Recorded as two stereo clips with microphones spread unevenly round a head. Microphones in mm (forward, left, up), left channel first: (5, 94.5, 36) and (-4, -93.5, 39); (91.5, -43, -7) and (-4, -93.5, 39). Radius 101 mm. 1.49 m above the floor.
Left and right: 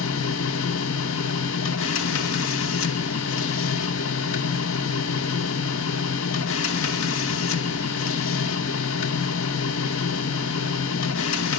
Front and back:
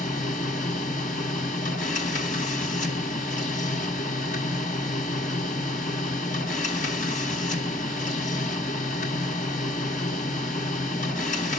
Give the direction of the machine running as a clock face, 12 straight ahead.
9 o'clock.